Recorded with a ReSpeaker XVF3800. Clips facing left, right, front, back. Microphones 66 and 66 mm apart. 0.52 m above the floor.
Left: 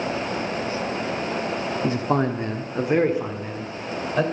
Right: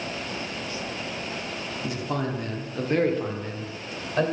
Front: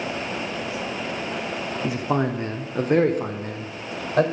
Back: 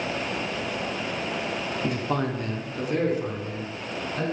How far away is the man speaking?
About 0.8 m.